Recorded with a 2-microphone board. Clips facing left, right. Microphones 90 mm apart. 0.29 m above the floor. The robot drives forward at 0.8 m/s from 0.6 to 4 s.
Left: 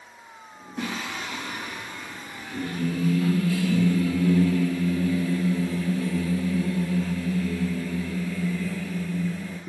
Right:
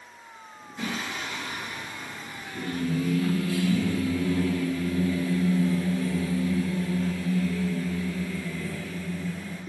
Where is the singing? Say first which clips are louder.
Left 1 dB; 65° left (ahead or behind), 3 m; by 9.6 s 35° left (ahead or behind), 4.5 m.